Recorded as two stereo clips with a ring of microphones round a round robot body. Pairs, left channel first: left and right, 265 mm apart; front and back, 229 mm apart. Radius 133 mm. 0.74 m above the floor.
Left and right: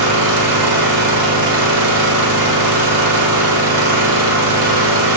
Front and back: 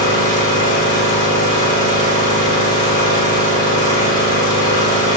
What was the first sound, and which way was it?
An engine running, 75° right.